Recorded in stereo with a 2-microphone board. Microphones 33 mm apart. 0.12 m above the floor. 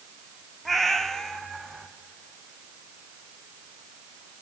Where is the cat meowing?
5° left (ahead or behind), 1.0 m; by 1.9 s 25° left (ahead or behind), 1.6 m.